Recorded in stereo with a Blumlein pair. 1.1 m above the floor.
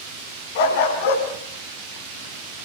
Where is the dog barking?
55° left, 3.5 m.